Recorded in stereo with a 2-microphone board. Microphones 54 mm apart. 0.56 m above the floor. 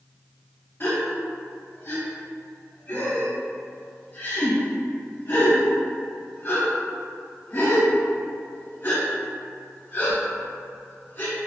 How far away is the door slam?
No door slam in this recording.